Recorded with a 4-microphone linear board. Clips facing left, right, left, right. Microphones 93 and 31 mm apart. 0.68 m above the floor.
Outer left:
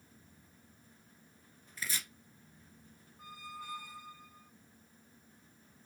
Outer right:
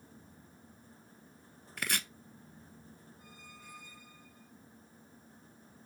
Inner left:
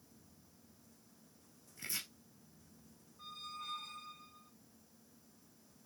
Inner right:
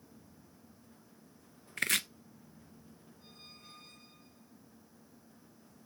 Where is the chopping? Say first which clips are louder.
Outer right 5 dB, inner right 13 dB; 70° right (ahead or behind), 1.5 m.